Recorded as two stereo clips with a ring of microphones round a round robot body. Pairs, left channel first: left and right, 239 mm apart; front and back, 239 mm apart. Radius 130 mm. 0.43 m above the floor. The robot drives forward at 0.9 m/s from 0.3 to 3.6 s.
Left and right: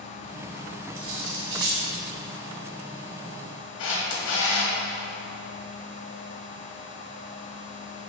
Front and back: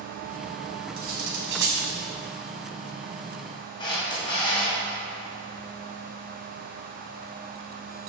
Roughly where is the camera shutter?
Left.